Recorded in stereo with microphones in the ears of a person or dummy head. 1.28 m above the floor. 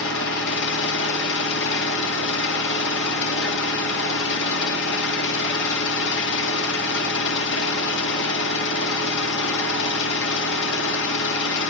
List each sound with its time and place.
0.0 s an engine running: 65° left (ahead or behind), 2 m